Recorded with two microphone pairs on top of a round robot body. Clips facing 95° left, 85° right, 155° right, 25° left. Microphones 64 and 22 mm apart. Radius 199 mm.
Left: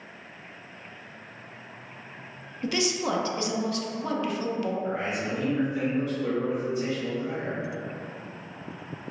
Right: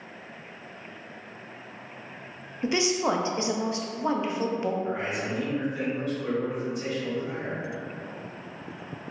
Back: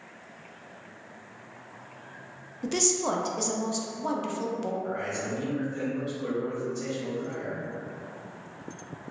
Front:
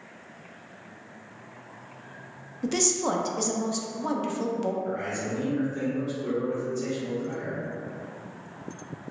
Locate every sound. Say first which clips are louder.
2.6 s a woman speaking: right 2 dB, front 1 dB; 45° right, 0.6 m
4.8 s a man speaking: even, front 1 dB; 170° left, 1.3 m